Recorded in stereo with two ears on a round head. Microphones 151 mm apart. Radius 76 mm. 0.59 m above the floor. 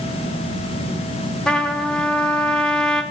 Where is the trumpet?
5° left (ahead or behind), 0.7 m.